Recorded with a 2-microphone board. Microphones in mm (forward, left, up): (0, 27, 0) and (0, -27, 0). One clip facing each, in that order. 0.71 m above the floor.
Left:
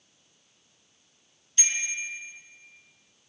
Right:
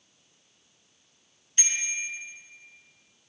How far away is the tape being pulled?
I don't hear tape being pulled.